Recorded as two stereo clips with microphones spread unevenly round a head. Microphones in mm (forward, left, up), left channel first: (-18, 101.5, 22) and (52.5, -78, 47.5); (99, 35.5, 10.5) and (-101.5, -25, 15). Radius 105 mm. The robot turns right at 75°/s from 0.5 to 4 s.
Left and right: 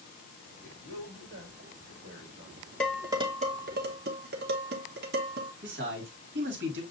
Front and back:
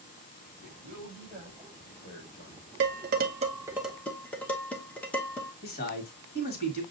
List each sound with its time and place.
0.6 s a man speaking: 170° right, 3 m; by 2.7 s 10° right, 3 m
2.8 s dishes clattering: 155° right, 0.8 m; by 5.5 s 65° right, 0.8 m
5.6 s a man speaking: 35° right, 1.8 m